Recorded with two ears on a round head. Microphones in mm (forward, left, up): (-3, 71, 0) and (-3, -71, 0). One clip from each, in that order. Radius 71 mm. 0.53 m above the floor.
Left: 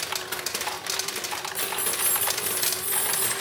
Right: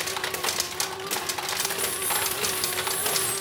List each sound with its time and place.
1.6 s keys jangling: 50° left (ahead or behind), 4.5 m; by 3.3 s 60° left (ahead or behind), 5.5 m